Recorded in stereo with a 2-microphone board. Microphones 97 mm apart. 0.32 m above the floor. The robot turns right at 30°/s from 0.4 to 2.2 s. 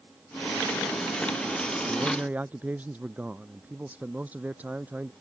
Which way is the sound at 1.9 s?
5° right (ahead or behind).